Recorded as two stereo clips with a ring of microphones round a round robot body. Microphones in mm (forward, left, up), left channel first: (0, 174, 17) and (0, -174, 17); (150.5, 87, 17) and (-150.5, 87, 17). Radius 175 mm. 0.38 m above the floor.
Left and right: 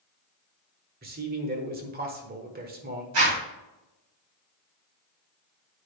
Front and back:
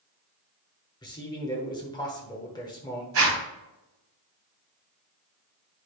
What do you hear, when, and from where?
1.0 s a man speaking: 60° right, 1.1 m
3.1 s a zipper: 130° right, 3.5 m